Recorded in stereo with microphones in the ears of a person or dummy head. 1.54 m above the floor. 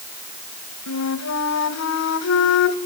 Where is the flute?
70° left (ahead or behind), 1.4 m.